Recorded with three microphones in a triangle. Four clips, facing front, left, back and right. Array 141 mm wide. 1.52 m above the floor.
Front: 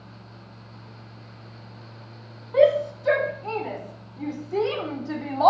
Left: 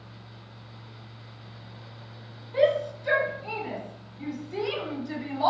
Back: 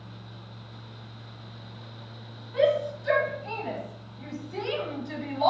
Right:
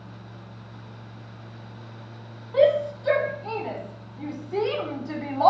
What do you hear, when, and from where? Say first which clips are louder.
2.5 s a shout: right 4 dB, front 5 dB; 20° right, 5 m; by 5.5 s 30° right, 3.5 m